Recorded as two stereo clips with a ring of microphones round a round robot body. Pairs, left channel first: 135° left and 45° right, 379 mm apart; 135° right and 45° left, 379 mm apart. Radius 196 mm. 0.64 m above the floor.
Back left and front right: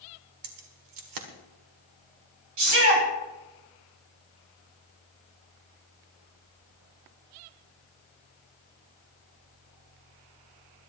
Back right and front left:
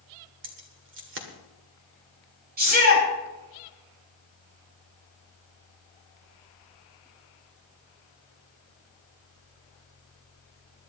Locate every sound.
0.4 s keys jangling: 15° right, 1.8 m
2.6 s a shout: 20° right, 7.5 m